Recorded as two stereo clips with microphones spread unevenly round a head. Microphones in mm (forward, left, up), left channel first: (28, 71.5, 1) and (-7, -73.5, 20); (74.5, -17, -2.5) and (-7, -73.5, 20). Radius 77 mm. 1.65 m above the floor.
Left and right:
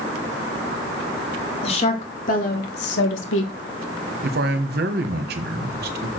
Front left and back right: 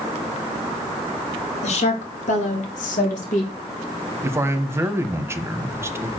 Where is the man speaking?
85° right, 1.3 m.